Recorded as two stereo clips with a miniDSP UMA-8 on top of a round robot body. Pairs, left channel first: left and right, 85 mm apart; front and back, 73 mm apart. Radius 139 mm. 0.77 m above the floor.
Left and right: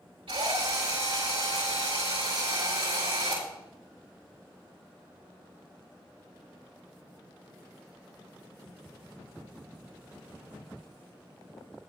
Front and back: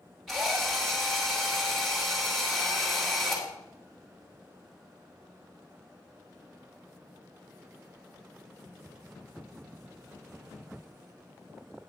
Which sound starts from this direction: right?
A drill, at 0.3 s.